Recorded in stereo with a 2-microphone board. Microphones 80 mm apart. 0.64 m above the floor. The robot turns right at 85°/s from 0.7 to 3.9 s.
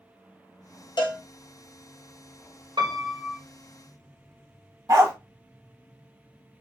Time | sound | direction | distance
1.0 | a cowbell | 65° left (ahead or behind) | 0.7 m
2.8 | a piano | 85° right | 1.2 m
4.9 | a dog barking | 45° right (ahead or behind) | 0.7 m